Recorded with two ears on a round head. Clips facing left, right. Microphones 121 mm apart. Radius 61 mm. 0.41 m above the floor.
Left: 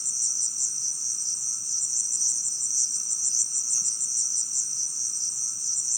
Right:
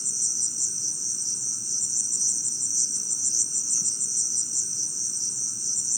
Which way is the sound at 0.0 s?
85° right.